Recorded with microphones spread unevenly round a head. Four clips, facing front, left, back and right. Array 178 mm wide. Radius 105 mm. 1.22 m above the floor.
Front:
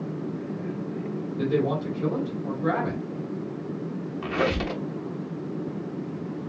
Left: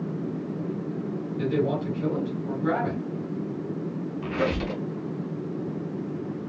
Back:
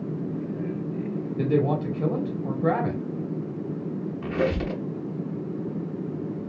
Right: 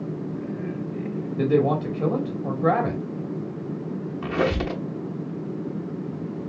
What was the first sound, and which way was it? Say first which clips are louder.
A man speaking: right 5 dB, back 1 dB; 115° right.